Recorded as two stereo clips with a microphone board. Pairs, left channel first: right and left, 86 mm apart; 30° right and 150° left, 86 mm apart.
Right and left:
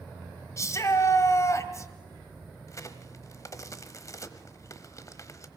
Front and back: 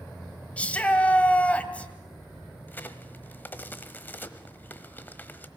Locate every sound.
0.6 s a shout: 95° right, 1.7 m
2.7 s a crack: 80° right, 1.1 m